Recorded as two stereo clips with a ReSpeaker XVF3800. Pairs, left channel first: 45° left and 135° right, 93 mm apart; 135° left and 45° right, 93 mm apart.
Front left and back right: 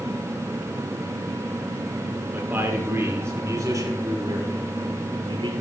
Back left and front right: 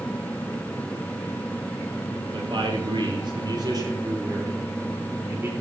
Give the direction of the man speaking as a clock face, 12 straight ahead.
2 o'clock.